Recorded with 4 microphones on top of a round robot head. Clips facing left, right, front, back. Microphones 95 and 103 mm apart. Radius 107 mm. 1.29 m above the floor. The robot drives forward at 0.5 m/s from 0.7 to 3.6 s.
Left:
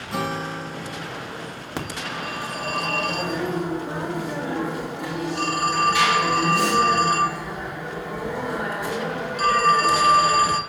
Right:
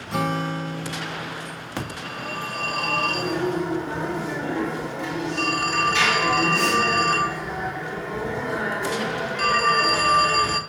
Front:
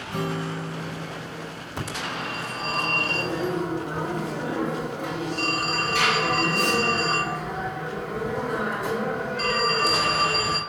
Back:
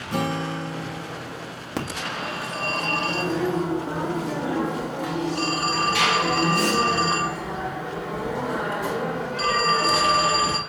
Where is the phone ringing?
165° left, 2 m; by 10.6 s 170° left, 3 m.